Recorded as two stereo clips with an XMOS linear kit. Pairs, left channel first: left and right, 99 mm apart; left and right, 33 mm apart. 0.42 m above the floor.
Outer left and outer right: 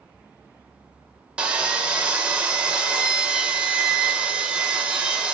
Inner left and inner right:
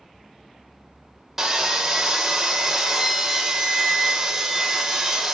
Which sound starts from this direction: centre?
Sawing, at 1.4 s.